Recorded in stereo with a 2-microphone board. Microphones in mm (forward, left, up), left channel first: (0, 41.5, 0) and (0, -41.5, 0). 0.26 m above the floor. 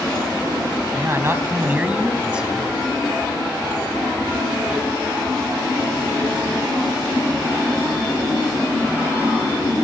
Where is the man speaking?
35° right (ahead or behind), 2.0 m; by 2.7 s 5° right (ahead or behind), 2.5 m.